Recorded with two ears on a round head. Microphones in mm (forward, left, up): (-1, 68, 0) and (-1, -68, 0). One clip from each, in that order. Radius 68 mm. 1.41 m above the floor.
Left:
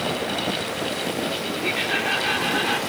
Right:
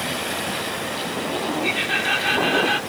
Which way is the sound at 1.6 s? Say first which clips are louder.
Right 1 dB; 15° right (ahead or behind).